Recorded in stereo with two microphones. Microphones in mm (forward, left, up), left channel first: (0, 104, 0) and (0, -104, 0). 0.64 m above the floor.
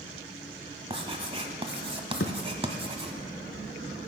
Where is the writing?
25° right (ahead or behind), 1.3 m.